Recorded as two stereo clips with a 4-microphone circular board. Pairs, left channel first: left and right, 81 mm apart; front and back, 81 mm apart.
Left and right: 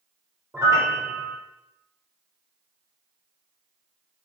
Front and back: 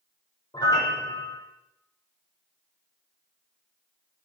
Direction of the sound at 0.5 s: 40° right.